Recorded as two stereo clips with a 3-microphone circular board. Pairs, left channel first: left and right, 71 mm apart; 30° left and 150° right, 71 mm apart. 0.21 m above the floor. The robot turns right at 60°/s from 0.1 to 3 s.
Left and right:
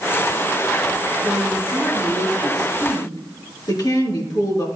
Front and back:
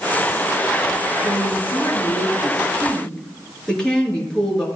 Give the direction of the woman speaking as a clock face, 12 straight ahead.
12 o'clock.